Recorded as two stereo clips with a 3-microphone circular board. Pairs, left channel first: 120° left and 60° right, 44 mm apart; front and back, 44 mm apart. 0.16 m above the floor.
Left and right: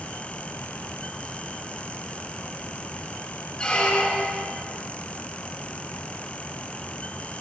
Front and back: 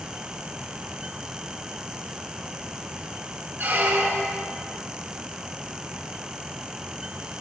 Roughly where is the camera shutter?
I don't hear a camera shutter.